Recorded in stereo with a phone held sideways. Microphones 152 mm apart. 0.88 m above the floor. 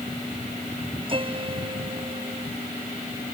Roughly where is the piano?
Right.